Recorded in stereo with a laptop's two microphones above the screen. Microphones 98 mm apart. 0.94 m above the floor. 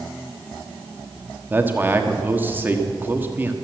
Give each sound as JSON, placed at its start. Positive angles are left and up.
{"t": 1.5, "sound": "a man speaking", "side_deg": -20, "distance_m": 1.4}